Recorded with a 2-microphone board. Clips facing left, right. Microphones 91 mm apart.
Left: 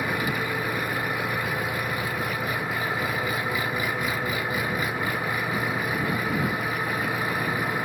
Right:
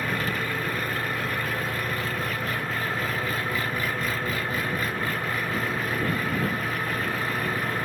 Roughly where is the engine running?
Centre.